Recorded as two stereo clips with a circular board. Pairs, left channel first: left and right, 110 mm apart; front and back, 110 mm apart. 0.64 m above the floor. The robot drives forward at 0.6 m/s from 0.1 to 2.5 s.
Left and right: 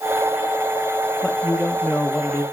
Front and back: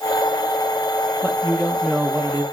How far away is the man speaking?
About 1.2 m.